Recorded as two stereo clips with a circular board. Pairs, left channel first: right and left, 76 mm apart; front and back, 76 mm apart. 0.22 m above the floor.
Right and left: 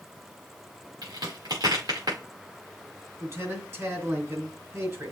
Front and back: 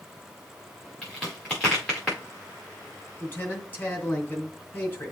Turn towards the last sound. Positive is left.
turn(degrees=55)